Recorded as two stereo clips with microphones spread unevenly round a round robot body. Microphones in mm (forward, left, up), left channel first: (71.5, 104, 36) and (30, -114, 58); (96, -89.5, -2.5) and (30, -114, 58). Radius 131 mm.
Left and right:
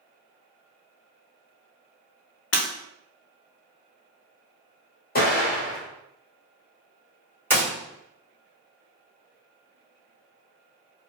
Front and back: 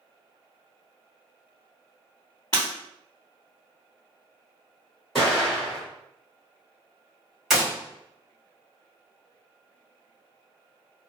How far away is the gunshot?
About 1.5 m.